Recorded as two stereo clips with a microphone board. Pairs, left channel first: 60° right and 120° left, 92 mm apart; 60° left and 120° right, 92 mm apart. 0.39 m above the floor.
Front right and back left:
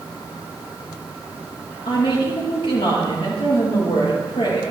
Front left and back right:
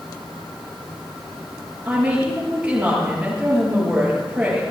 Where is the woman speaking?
40° right, 6.5 m.